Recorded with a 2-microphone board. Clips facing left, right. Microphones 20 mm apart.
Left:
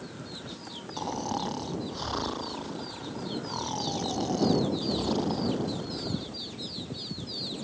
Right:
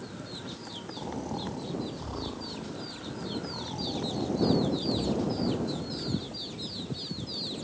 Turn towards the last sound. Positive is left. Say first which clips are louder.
# left 5 dB
turn(degrees=60)  # may be behind; listen again after turning